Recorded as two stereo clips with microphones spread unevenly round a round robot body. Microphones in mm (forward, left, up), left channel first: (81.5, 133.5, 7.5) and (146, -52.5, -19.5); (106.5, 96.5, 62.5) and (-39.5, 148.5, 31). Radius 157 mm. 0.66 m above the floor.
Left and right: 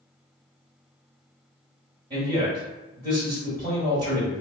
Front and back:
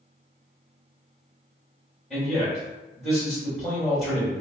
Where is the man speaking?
120° right, 1.5 m.